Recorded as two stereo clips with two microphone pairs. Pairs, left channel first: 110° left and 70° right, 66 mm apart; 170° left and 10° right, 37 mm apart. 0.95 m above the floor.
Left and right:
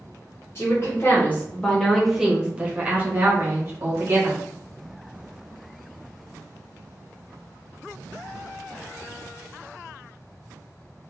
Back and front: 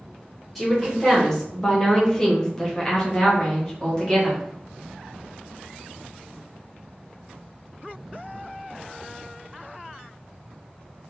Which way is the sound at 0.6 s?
90° left.